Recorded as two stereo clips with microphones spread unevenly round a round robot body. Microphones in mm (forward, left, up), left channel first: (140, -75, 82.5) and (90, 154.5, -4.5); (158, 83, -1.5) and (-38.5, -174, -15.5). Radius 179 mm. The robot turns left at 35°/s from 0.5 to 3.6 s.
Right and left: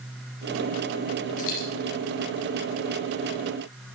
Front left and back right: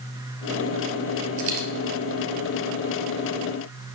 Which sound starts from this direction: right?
A dropped coin, at 1.4 s.